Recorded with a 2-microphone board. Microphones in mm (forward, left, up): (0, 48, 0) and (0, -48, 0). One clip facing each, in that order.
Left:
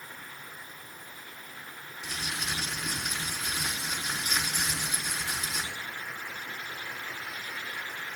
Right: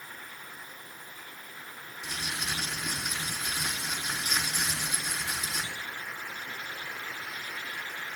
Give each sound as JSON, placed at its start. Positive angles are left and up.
{"t": 2.0, "sound": "crumpling", "side_deg": -5, "distance_m": 4.0}